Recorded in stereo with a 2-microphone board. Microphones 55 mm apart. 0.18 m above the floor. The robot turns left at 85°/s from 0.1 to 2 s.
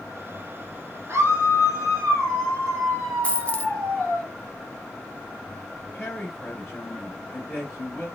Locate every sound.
1.1 s a scream: 50° right, 2.5 m; by 4.2 s 130° right, 2.5 m
3.2 s a dropped coin: 25° left (ahead or behind), 0.6 m
5.9 s a woman speaking: 25° left (ahead or behind), 2 m